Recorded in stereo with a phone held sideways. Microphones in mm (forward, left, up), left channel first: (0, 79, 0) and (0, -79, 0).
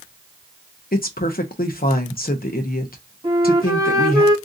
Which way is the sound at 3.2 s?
30° right (ahead or behind).